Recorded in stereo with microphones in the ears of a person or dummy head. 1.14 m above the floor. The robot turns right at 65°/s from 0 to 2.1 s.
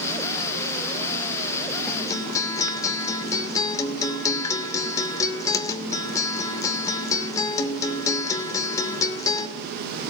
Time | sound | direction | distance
1.9 | a guitar | 5° left (ahead or behind) | 2.5 m